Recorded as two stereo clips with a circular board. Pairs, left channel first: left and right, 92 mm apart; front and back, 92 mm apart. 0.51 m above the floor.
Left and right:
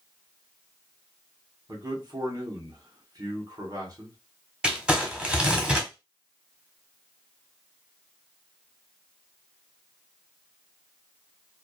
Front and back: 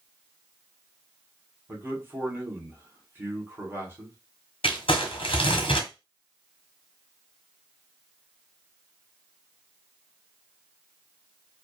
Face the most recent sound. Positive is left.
turn(degrees=-10)